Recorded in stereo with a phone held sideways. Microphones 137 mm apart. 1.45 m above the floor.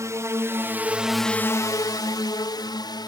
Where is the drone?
20° right (ahead or behind); by 3.1 s 30° left (ahead or behind).